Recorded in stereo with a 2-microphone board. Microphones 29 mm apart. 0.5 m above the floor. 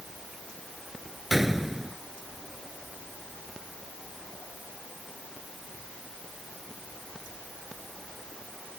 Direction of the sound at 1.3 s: 10° right (ahead or behind).